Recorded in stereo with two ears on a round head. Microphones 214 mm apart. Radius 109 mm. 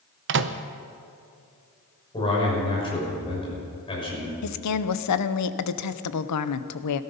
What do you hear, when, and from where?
0.3 s a microwave: 50° right (ahead or behind), 0.7 m
2.1 s a man speaking: 20° left (ahead or behind), 6.5 m
4.4 s a woman speaking: 80° left, 0.8 m